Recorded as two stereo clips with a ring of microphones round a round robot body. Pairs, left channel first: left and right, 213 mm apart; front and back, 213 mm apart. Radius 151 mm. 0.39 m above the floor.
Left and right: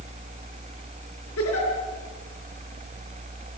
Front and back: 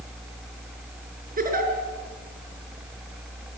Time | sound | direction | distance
1.4 | a giggle | 130° left | 5.5 m